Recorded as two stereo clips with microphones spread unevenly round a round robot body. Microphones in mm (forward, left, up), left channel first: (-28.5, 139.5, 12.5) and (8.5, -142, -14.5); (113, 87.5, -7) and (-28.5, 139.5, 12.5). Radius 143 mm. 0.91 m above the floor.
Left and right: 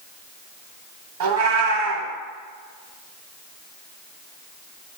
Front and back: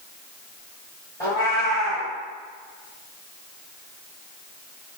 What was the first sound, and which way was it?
A cat meowing, 95° right.